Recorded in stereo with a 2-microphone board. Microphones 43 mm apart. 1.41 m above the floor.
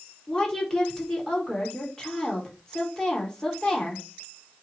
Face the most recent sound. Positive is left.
turn(degrees=15)  # may be behind; listen again after turning